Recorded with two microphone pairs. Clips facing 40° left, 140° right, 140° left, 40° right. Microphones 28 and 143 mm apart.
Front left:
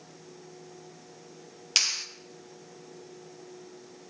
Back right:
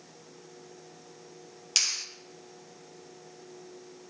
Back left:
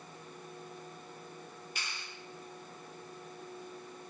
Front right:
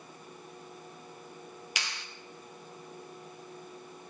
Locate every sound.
1.8 s a clap: 35° right, 1.0 m